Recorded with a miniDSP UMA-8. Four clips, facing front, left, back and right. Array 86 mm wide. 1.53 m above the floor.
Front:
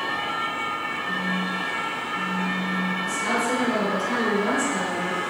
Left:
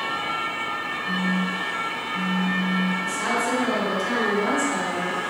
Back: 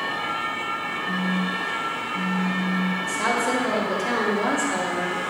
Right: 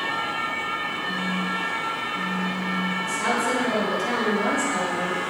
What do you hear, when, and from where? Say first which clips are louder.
1.1 s a phone buzzing: left 4 dB, back 3 dB; 135° left, 0.7 m
3.0 s a woman speaking: right 1 dB, back 1 dB; straight behind, 3.5 m